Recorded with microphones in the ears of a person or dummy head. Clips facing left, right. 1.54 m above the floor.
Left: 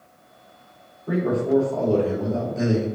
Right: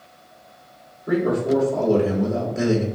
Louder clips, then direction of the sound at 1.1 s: Right 2 dB; 25° right (ahead or behind).